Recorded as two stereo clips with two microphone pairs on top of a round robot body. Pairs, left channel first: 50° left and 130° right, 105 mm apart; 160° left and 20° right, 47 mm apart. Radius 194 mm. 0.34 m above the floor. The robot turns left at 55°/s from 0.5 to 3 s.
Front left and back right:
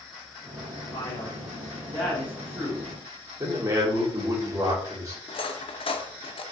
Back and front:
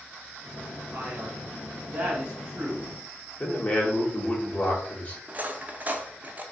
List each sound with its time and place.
0.9 s a man speaking: 10° left, 1.2 m; by 2.9 s 100° right, 1.2 m
3.4 s a man speaking: 155° right, 1.7 m
5.3 s cutlery clinking: 35° left, 0.7 m